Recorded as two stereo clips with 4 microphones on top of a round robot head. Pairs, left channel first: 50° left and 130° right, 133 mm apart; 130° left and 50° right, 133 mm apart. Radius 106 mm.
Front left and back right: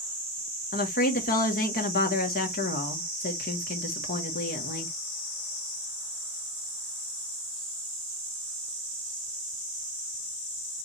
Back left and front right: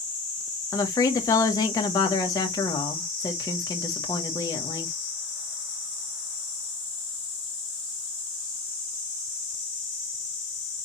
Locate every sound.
0.7 s a woman speaking: 65° left, 1.5 m